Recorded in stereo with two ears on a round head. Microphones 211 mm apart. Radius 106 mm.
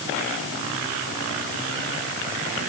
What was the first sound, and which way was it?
Only background noise.